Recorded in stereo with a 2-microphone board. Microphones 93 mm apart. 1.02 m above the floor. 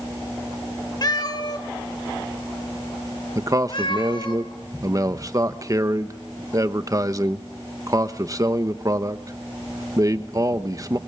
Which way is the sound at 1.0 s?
45° left (ahead or behind).